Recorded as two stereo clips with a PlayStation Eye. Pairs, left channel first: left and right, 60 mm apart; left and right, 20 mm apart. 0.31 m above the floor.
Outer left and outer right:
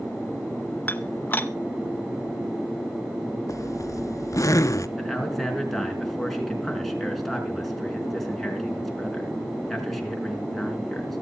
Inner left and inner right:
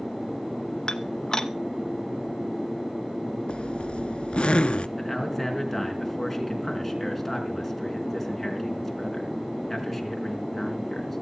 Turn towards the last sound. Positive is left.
turn(degrees=5)  # may be behind; listen again after turning